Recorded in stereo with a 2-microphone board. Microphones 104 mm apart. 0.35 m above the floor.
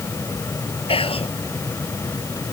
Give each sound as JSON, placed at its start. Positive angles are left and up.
{"t": 0.9, "sound": "whispering", "side_deg": 60}